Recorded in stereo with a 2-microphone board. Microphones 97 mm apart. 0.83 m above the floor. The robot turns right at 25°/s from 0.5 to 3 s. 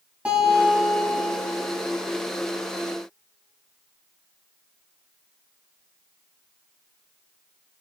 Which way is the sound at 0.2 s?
10° right (ahead or behind).